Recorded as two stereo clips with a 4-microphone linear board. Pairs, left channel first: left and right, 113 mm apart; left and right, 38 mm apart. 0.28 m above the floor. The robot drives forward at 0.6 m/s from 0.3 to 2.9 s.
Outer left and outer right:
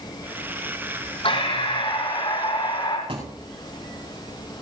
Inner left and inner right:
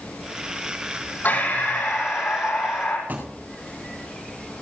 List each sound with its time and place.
1.2 s breathing: 55° left (ahead or behind), 7 m; by 3.0 s 50° left (ahead or behind), 7.5 m
3.1 s a thud: 55° right (ahead or behind), 6 m